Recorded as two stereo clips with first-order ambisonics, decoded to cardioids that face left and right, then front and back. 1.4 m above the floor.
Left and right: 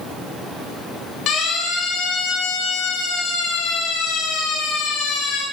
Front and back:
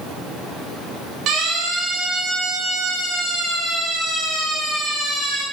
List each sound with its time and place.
1.3 s a siren: 130° left, 5 m; by 5.4 s 95° left, 6 m